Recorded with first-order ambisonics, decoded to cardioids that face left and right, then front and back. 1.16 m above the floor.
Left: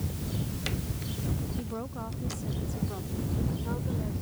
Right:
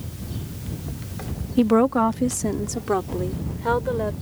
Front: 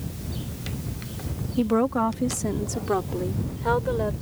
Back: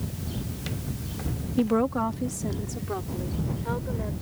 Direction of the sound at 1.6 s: 90° right.